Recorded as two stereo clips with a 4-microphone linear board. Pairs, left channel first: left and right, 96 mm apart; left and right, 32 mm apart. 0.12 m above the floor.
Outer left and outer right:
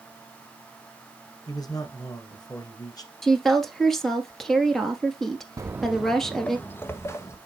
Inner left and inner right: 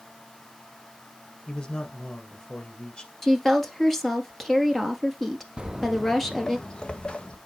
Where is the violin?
I don't hear a violin.